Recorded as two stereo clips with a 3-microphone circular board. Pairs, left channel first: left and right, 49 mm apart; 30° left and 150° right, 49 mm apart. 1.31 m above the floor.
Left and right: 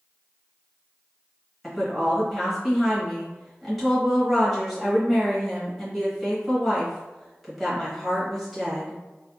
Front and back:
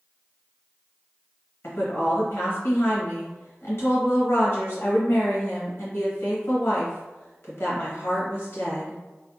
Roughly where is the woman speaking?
Ahead.